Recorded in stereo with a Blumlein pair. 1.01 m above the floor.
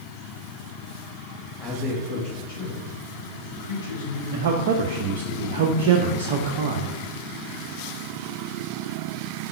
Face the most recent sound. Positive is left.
turn(degrees=-50)